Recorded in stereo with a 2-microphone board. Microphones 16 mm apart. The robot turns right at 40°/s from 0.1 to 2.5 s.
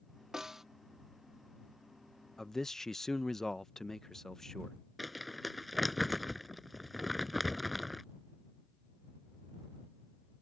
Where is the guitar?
I don't hear a guitar.